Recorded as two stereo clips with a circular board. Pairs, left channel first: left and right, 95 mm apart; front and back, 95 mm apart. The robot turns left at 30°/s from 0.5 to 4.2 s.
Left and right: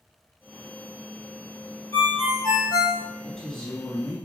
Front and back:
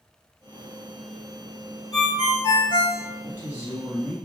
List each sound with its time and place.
1.9 s a ringtone: 35° left, 1.5 m; by 3.0 s 5° left, 1.5 m
3.2 s a woman speaking: 170° left, 1.1 m; by 4.2 s 145° left, 1.1 m